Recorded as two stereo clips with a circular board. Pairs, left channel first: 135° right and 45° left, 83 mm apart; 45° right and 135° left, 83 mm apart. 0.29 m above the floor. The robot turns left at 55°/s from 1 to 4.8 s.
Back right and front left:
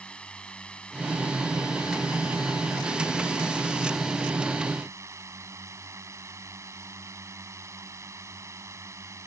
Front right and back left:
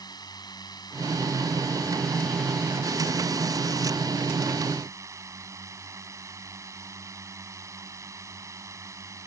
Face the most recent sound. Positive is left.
turn(degrees=90)